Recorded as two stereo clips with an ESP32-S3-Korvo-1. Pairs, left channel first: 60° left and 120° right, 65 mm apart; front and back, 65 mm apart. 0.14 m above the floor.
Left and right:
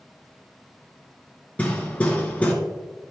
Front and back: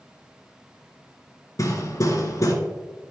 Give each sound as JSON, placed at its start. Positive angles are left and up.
{"t": 1.6, "sound": "hammering", "azimuth_deg": -5, "distance_m": 1.3}